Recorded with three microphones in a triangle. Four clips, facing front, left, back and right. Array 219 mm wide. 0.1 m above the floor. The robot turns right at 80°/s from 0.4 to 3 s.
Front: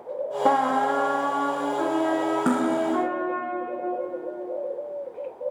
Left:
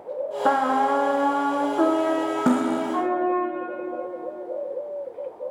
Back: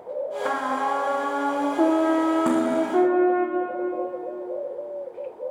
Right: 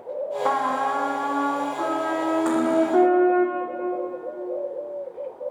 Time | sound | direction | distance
0.5 | a trumpet | 35° left | 3.5 m
2.5 | cutlery clinking | 75° left | 4.5 m